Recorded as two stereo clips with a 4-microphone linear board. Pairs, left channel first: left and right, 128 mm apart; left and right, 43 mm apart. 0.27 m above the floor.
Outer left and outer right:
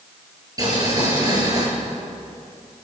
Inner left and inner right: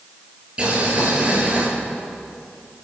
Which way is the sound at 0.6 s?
30° right (ahead or behind).